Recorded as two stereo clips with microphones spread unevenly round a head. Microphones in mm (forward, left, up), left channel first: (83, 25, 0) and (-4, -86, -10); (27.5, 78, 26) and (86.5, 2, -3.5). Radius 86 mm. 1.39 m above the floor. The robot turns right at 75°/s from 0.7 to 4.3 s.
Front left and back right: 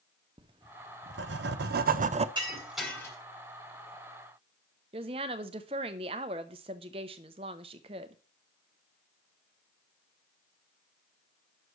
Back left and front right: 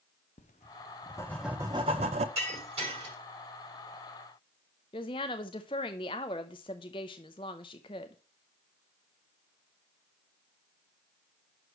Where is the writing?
165° left, 0.5 m; by 2.2 s 80° right, 0.5 m.